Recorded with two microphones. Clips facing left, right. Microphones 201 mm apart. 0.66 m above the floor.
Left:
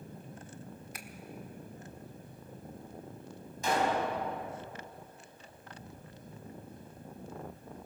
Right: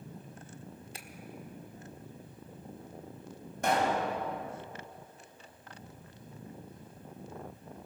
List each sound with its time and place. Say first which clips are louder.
0.9 s a finger snap: left 1 dB; 30° right (ahead or behind), 1.4 m
3.6 s a pop: right 1 dB; 65° right (ahead or behind), 4.5 m